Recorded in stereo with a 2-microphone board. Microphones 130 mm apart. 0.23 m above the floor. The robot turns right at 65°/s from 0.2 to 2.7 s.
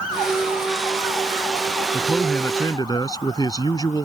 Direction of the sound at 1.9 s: 15° right.